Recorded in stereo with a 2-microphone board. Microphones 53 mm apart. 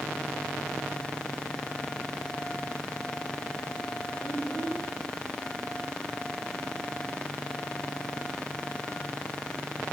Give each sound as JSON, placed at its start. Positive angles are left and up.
{"t": 4.2, "sound": "a child speaking", "side_deg": 45, "distance_m": 1.6}